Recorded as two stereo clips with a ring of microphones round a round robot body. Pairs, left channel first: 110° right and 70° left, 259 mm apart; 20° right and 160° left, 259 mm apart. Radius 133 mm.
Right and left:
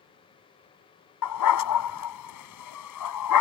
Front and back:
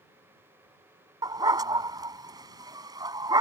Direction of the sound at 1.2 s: 125° right.